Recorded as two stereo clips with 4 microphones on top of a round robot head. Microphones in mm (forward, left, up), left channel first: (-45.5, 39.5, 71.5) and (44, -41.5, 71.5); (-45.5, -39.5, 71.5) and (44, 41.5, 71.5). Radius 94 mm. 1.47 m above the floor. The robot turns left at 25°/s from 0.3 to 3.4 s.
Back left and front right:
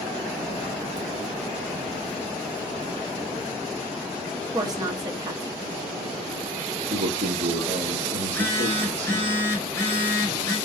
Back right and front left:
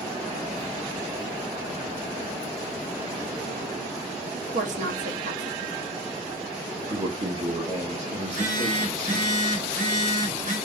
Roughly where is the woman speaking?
Ahead.